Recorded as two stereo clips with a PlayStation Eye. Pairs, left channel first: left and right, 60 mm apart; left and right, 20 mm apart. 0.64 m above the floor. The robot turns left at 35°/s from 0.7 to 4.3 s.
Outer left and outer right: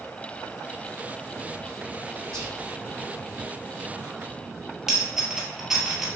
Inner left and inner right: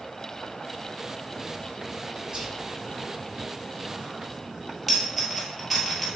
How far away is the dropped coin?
About 1.5 m.